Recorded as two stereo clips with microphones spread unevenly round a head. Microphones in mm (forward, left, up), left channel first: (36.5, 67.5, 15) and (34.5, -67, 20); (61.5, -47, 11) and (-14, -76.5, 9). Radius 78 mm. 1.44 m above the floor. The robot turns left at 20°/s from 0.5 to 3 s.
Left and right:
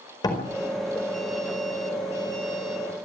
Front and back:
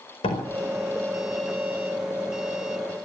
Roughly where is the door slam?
Ahead left.